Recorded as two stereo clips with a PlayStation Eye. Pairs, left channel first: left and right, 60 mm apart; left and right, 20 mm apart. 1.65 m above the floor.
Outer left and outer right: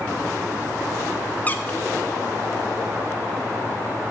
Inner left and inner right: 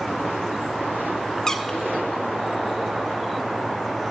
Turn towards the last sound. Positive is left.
turn(degrees=25)  # may be behind; listen again after turning